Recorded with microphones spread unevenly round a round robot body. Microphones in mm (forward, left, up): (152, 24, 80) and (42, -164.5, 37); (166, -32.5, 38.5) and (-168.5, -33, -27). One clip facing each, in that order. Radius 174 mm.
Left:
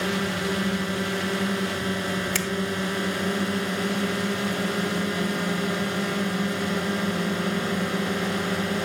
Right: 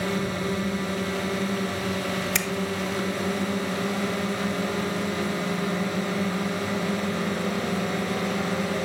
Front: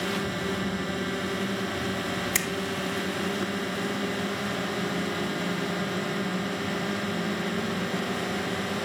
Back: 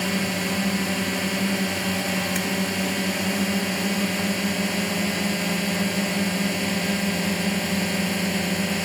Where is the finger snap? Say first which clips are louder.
Left 1 dB, back 4 dB; 65° right.